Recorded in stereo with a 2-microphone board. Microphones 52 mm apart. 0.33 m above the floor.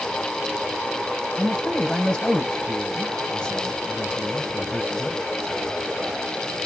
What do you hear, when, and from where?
1.4 s a man speaking: 25° left (ahead or behind), 1.4 m